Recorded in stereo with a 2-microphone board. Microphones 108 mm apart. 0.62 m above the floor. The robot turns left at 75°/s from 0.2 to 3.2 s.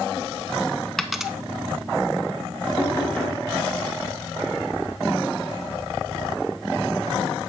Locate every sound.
1.0 s a dropped coin: 5° left (ahead or behind), 0.5 m; by 1.3 s 5° right (ahead or behind), 0.5 m
2.8 s knocking: 45° left, 3 m; by 3.4 s 10° left, 3 m